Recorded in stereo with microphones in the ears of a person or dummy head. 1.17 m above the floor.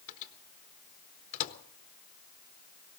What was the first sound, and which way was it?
A microwave, 45° left (ahead or behind).